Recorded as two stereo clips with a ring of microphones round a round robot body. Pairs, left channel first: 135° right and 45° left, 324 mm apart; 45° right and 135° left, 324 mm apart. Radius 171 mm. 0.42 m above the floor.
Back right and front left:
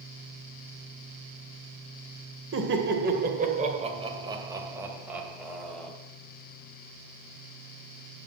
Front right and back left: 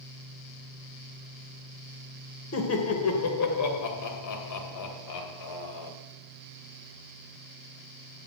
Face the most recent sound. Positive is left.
turn(degrees=-50)